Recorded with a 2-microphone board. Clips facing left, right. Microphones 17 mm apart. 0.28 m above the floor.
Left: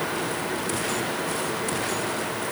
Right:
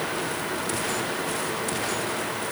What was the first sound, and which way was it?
Only background noise.